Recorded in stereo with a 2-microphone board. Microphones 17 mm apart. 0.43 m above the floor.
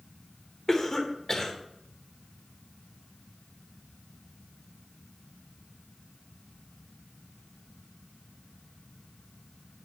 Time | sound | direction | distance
0.7 | a cough | 30° left (ahead or behind) | 1.3 m